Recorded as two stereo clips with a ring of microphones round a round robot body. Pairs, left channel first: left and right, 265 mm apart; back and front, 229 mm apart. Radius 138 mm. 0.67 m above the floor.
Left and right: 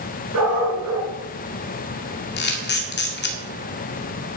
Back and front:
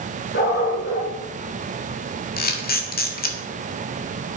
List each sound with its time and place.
0.3 s a dog barking: 125° right, 3.5 m
2.4 s a camera shutter: 135° left, 2 m